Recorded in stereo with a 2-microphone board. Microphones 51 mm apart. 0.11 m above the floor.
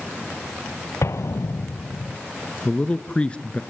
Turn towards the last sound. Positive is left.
turn(degrees=25)  # may be behind; listen again after turning